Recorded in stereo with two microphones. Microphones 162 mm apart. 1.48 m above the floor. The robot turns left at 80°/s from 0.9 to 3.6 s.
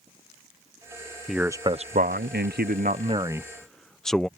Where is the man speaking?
Straight ahead; by 4.3 s 175° left.